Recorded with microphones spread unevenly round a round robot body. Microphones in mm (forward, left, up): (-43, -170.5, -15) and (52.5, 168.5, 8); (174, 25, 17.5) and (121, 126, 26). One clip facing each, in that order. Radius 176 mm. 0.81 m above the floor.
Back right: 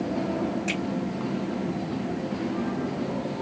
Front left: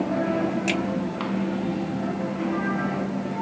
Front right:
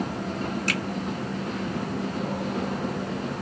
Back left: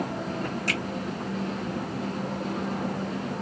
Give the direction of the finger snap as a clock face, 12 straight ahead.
8 o'clock.